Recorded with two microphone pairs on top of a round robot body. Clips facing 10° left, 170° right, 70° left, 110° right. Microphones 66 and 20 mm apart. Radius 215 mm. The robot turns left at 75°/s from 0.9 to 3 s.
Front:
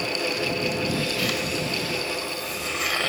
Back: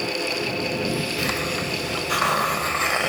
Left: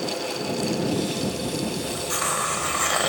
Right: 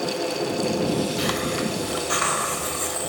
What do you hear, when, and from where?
1.2 s a hiss: 105° right; by 3.1 s 120° left